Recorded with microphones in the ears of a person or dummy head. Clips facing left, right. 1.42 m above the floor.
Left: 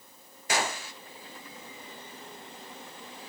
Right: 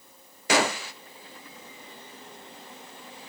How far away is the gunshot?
About 0.6 m.